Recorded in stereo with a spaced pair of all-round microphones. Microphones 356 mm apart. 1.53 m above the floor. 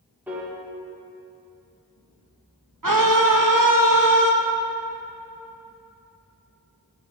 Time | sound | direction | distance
0.3 | a piano | 5° right (ahead or behind) | 2 m
2.8 | a scream | 60° right (ahead or behind) | 1.5 m